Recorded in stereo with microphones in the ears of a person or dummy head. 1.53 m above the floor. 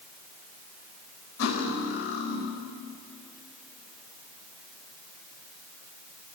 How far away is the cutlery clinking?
About 4 m.